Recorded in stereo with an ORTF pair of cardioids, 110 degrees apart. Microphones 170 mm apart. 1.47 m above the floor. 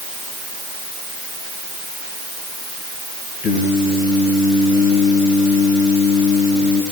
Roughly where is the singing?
Ahead left.